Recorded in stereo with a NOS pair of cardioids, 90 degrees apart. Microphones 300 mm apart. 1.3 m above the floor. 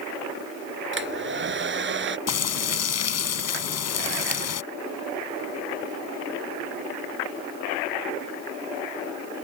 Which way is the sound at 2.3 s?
60° left.